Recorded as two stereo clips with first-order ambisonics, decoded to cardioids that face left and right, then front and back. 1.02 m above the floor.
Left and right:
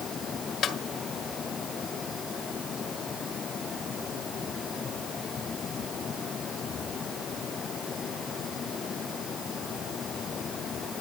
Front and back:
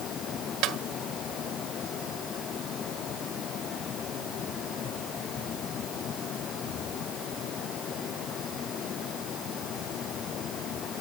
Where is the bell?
I don't hear a bell.